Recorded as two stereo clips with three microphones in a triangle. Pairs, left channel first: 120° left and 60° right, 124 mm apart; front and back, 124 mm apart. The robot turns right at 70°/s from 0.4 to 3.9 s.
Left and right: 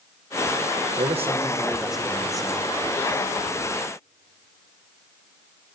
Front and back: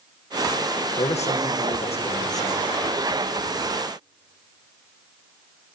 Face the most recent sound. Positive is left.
turn(degrees=165)